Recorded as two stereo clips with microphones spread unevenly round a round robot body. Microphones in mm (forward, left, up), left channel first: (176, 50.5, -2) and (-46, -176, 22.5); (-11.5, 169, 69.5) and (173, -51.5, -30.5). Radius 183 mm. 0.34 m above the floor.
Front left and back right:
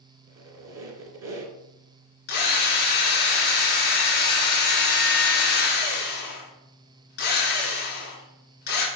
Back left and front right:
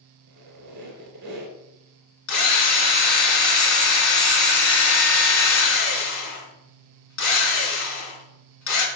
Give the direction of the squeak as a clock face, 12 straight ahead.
3 o'clock.